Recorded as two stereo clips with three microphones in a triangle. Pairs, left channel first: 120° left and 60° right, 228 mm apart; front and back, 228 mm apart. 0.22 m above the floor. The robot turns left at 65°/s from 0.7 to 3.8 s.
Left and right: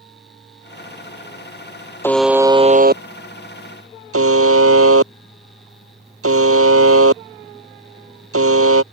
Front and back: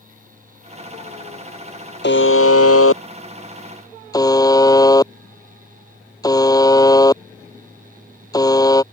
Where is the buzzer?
40° left; by 8.8 s 75° right.